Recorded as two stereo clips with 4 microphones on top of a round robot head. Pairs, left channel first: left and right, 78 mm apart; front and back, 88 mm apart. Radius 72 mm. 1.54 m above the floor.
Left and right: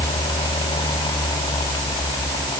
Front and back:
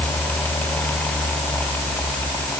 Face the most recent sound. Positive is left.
No sound to turn to.